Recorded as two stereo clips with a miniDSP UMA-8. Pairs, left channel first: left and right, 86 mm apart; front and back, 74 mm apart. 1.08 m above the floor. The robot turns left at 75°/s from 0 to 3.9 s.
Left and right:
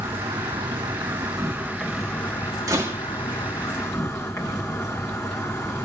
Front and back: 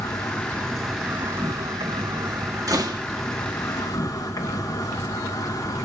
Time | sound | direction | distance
0.0 | an insect | 30° right | 2.5 m
2.7 | a door slam | 140° right | 1.7 m